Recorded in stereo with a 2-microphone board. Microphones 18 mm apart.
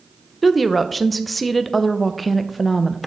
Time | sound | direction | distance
0.4 | a woman speaking | 5° left (ahead or behind) | 0.6 m